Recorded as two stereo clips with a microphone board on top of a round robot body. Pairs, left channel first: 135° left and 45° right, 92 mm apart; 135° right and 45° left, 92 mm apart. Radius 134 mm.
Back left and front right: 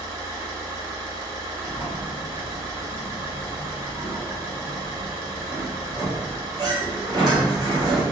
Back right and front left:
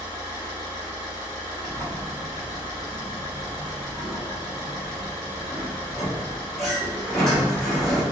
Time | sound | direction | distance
0.0 | an engine running | 95° right | 1.9 m
1.6 | a sliding door | 45° right | 1.8 m